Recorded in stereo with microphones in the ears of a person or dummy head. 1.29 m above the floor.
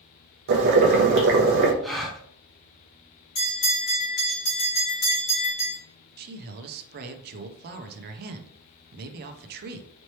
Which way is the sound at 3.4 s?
45° left (ahead or behind).